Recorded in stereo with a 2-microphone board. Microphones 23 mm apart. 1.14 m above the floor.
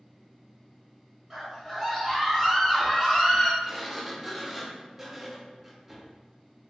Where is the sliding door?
10° right (ahead or behind), 0.5 m.